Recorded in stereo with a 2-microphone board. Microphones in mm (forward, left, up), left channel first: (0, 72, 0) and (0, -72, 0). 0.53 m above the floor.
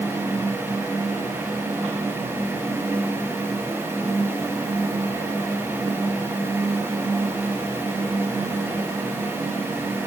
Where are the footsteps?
No footsteps in this recording.